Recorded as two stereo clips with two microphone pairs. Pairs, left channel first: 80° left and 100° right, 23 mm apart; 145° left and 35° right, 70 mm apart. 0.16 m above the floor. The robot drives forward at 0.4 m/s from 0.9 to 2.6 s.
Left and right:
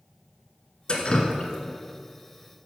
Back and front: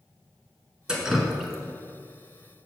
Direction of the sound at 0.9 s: 40° left.